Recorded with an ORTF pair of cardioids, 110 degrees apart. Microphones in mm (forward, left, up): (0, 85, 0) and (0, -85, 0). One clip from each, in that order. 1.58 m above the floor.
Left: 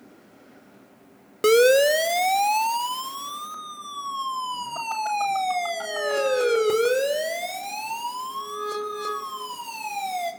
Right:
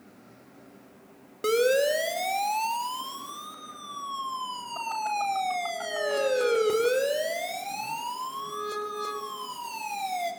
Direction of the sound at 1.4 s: 45° left.